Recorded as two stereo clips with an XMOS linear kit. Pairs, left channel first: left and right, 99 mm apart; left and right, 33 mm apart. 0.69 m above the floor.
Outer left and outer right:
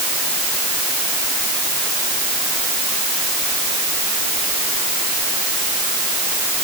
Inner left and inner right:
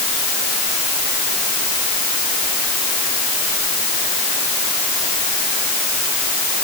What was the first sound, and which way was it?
Only background noise.